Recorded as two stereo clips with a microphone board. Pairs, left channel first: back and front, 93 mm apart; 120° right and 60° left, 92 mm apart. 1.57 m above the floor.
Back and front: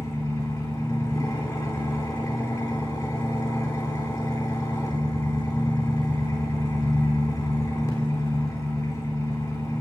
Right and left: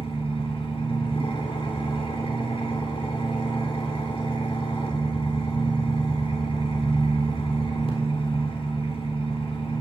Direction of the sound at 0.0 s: 120° right.